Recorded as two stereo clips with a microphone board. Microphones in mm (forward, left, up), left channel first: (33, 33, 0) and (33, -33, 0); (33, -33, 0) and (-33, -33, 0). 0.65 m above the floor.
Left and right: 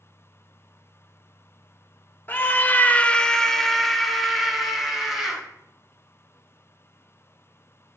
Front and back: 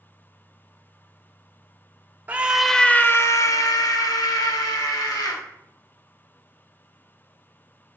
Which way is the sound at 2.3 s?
130° left.